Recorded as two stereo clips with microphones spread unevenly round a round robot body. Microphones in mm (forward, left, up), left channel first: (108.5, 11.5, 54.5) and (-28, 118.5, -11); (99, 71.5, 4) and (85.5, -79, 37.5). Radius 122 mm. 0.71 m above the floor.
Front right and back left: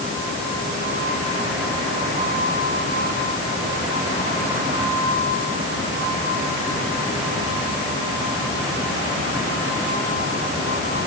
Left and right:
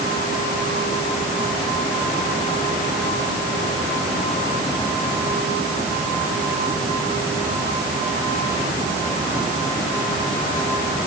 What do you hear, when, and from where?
Only background noise.